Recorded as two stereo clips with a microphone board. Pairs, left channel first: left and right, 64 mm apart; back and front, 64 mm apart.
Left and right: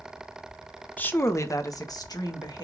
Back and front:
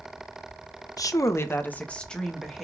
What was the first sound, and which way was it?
A woman speaking, 155° left.